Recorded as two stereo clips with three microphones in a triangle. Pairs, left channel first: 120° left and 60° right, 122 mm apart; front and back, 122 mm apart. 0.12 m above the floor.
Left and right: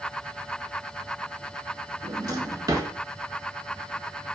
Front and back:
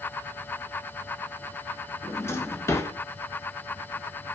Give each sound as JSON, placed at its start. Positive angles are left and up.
{"t": 2.0, "sound": "a drawer", "azimuth_deg": -45, "distance_m": 0.5}